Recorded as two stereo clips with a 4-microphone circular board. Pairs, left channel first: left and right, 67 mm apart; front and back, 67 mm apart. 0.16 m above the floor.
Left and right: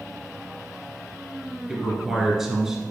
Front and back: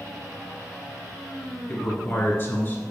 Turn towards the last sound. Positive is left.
turn(degrees=-15)